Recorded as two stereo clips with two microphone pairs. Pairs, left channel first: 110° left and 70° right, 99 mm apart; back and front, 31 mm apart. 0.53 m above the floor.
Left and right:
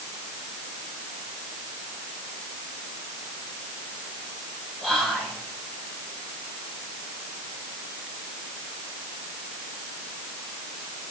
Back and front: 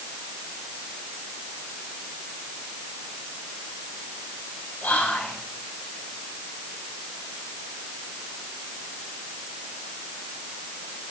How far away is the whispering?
About 3.5 m.